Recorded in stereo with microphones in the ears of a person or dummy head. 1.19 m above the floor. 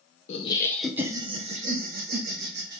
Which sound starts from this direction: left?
Laughter, at 0.3 s.